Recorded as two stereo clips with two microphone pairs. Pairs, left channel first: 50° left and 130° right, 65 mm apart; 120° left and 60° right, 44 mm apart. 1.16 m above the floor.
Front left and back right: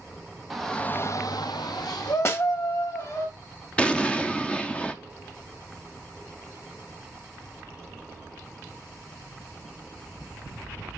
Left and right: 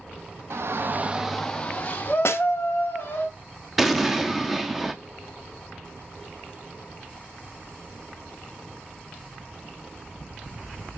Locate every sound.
0.5 s a shout: 40° right, 1.1 m; by 3.2 s 80° left, 3.5 m
2.2 s a snare drum: 105° left, 1.0 m
3.8 s an explosion: 25° left, 0.6 m